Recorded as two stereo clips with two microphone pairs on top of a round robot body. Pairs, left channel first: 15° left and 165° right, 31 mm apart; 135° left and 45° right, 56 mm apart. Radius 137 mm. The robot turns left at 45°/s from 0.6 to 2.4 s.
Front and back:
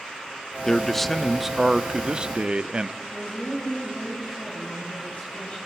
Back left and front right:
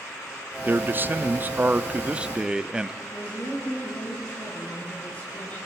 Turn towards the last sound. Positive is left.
turn(degrees=65)